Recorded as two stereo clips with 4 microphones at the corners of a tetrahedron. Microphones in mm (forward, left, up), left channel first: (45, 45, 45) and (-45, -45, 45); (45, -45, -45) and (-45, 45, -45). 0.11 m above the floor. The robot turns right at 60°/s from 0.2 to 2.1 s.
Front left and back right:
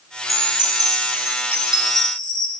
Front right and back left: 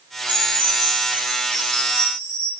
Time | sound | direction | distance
0.3 | a chime | 170° right | 3.5 m